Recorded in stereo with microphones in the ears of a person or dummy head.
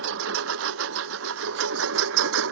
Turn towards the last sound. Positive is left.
turn(degrees=-75)  # may be behind; listen again after turning